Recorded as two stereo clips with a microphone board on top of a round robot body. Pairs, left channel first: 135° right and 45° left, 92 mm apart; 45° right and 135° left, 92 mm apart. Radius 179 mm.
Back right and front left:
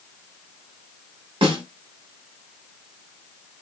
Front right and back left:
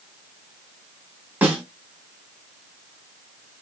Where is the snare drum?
65° left, 0.5 m.